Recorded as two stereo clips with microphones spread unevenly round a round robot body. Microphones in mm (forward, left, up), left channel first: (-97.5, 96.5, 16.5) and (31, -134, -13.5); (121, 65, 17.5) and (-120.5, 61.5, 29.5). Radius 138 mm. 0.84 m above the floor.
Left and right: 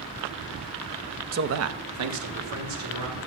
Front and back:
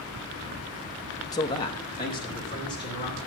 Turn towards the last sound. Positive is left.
turn(degrees=-75)